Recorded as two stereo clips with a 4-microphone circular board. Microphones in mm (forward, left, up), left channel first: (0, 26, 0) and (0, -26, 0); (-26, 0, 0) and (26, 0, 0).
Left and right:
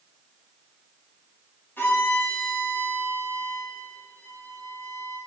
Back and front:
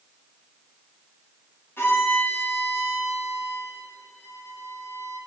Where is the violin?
140° left, 3.5 m.